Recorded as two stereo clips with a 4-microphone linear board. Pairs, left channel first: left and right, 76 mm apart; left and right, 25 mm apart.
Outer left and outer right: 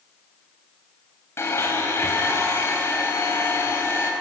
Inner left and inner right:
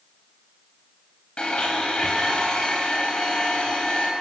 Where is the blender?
35° left (ahead or behind), 4.5 m.